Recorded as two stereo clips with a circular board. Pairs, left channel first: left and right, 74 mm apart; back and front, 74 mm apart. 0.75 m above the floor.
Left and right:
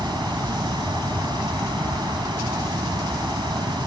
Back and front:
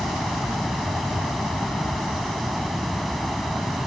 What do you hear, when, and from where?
0.0 s running water: 90° right